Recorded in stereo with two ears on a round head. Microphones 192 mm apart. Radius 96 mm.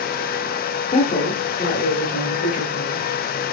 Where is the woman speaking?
25° left (ahead or behind), 0.8 m; by 3.1 s 40° left (ahead or behind), 2 m.